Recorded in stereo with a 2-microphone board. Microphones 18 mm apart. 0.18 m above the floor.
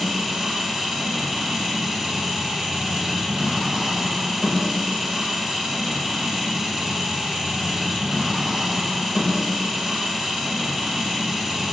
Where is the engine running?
30° right (ahead or behind), 5 m.